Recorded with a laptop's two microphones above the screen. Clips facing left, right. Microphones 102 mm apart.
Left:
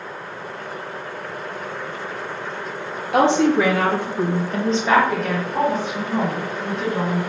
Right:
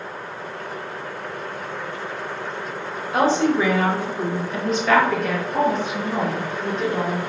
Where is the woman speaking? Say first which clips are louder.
Left 3 dB; 75° left (ahead or behind), 1.0 m; by 7.2 s 40° right (ahead or behind), 1.4 m.